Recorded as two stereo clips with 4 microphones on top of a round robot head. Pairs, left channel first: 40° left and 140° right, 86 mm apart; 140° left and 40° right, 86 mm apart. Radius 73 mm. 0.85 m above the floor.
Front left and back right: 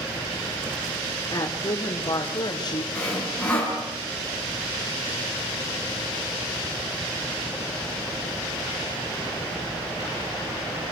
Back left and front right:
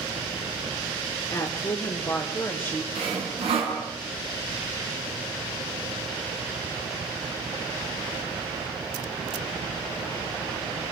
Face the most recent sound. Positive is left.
turn(degrees=-40)